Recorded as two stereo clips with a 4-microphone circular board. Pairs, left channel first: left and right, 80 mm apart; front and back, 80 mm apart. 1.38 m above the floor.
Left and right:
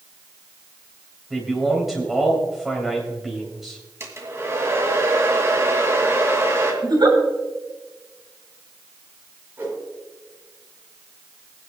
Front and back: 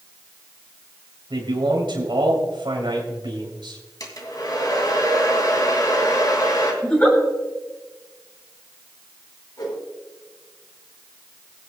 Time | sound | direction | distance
1.3 | a man speaking | 175° right | 3 m
4.0 | a hair dryer | 35° right | 2.5 m
6.8 | a giggle | 70° right | 3 m
9.6 | a whoosh | 30° right | 4.5 m